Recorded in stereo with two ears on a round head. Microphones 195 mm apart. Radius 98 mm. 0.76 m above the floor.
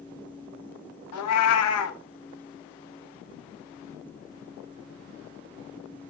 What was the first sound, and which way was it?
A cat meowing, 80° left.